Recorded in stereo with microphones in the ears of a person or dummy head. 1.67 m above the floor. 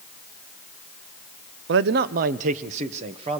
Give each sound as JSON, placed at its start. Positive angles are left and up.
{"t": 1.7, "sound": "a man speaking", "side_deg": -60, "distance_m": 0.7}